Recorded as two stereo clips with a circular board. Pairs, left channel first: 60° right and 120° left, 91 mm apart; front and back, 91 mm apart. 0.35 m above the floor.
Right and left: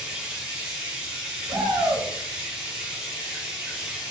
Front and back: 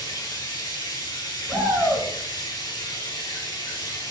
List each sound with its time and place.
0.0 s running water: 40° left, 2 m
1.5 s a shout: 75° left, 3.5 m